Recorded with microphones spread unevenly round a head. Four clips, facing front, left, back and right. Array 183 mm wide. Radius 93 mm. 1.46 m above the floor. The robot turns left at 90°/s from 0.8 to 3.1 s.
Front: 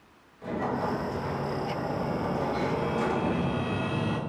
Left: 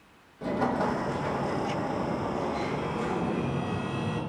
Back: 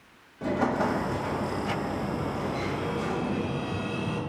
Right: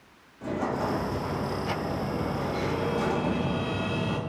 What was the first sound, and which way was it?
An explosion, 165° left.